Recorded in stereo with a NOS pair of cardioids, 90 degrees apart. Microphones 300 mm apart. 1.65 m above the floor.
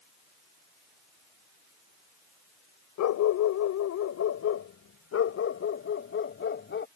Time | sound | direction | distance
3.0 | a dog barking | 70° left | ?